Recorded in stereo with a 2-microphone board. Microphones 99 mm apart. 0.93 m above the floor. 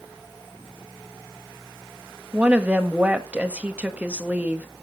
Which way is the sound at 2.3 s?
15° right (ahead or behind).